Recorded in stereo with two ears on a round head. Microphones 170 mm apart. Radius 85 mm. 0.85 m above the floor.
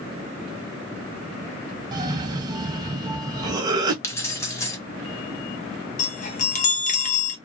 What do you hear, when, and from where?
1.9 s a cough: 20° right (ahead or behind), 1.0 m
4.0 s keys jangling: 15° left (ahead or behind), 0.9 m
6.0 s a chime: 40° left (ahead or behind), 0.8 m